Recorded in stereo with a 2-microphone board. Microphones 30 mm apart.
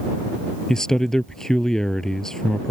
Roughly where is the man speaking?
Centre.